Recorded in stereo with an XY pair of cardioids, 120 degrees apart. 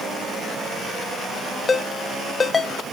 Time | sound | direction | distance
1.7 | a ringtone | 25° left | 0.7 m